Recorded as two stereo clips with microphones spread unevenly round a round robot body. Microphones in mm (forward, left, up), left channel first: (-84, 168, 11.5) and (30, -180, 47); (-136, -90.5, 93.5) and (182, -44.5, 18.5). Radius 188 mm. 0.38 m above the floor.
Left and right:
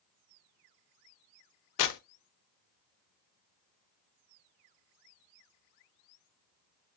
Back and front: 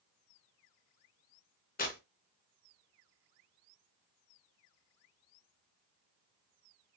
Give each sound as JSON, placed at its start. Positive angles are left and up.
{"t": 1.8, "sound": "tearing paper", "azimuth_deg": 120, "distance_m": 0.6}